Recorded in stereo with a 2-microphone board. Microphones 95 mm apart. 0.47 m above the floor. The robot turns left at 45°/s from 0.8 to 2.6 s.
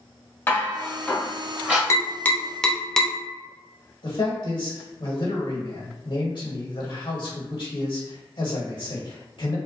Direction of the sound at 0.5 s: 25° left (ahead or behind).